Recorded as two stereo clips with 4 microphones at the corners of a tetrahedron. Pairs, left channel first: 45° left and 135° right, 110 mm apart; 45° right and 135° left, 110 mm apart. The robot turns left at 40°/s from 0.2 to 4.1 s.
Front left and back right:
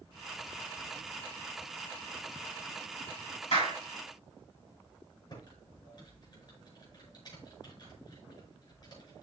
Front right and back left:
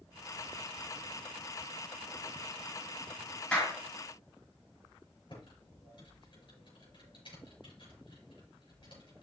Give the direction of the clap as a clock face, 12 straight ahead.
11 o'clock.